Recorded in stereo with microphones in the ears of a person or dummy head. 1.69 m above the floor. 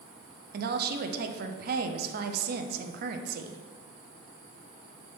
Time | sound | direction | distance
0.5 | a woman speaking | 60° right (ahead or behind) | 0.6 m